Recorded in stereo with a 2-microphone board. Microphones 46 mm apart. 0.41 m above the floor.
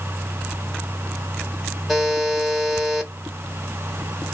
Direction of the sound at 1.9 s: Centre (ahead or behind).